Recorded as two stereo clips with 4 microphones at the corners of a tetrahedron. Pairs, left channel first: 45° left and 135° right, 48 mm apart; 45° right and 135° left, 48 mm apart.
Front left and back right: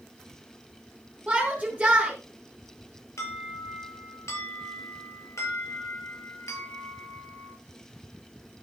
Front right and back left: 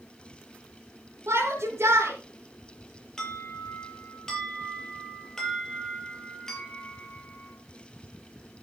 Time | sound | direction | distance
1.3 | a shout | 155° left | 5 m
3.2 | an alarm | 35° left | 6.5 m